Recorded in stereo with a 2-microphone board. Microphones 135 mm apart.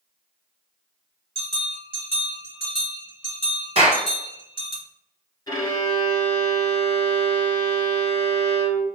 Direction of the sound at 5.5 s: 35° left (ahead or behind).